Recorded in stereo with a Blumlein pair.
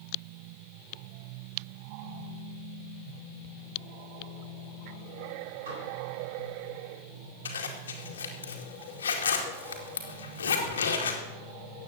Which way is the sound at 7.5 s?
65° left.